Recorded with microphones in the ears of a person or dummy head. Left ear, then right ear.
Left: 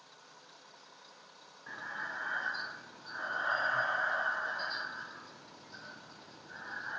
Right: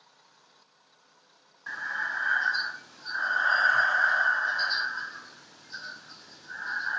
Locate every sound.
1.7 s breathing: 45° right (ahead or behind), 0.5 m